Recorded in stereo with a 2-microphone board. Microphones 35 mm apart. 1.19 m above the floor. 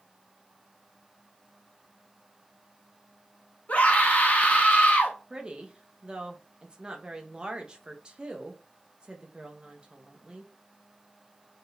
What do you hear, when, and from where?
3.7 s a scream: 45° left (ahead or behind), 1.5 m
5.3 s a woman speaking: 25° right (ahead or behind), 1.0 m